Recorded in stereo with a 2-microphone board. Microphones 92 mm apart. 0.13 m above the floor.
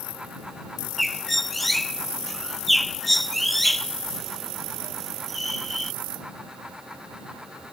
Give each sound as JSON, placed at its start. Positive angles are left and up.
{"t": 1.0, "sound": "a bird", "side_deg": 0}